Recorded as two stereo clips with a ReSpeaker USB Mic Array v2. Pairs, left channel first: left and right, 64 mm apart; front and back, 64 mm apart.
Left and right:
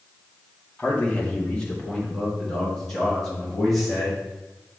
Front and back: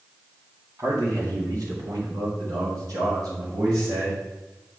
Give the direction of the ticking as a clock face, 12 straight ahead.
I don't hear ticking.